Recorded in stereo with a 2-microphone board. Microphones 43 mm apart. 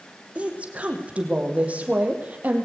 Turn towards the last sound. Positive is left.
turn(degrees=-40)  # may be behind; listen again after turning